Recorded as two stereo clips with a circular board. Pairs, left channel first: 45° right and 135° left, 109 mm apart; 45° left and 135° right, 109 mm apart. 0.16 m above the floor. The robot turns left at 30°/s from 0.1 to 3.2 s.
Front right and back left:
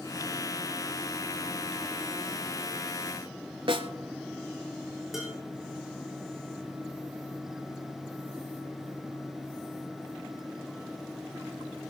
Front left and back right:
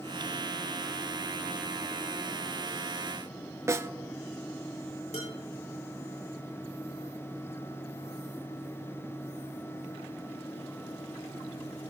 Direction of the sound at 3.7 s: 165° left.